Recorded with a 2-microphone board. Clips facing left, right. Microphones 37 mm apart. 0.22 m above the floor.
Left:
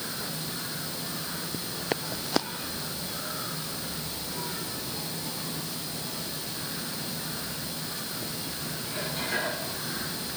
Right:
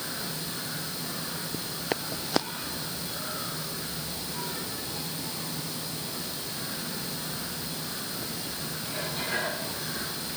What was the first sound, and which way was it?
Only background noise.